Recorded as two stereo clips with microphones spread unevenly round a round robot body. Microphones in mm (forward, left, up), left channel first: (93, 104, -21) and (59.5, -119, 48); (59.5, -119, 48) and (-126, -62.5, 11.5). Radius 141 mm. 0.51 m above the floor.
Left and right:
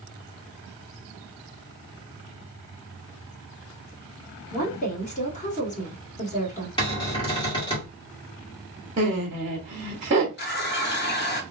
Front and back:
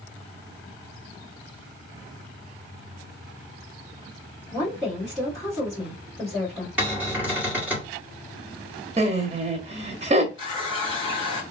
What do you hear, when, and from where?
4.5 s a woman speaking: 80° left, 1.6 m
6.8 s a cupboard door: 100° left, 1.6 m
9.0 s laughter: 170° right, 1.0 m
10.4 s a running tap: 55° left, 0.9 m